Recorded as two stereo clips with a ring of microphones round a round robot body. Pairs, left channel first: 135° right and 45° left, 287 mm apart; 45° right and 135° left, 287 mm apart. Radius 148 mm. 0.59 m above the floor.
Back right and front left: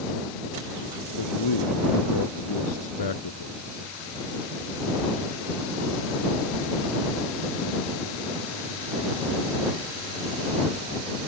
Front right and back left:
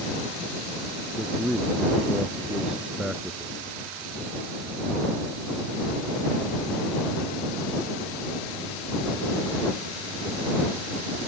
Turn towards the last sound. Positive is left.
turn(degrees=-140)